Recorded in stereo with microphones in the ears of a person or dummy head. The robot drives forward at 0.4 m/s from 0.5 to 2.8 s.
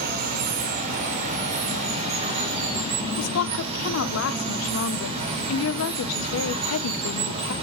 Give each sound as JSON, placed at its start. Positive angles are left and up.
{"t": 0.0, "sound": "running water", "side_deg": -40, "distance_m": 2.0}
{"t": 3.2, "sound": "a woman speaking", "side_deg": 70, "distance_m": 0.9}